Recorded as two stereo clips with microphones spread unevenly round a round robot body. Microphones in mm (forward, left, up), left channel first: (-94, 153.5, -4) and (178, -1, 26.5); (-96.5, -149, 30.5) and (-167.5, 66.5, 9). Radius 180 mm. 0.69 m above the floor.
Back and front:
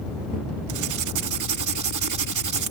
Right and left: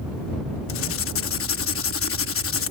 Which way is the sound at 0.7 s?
55° right.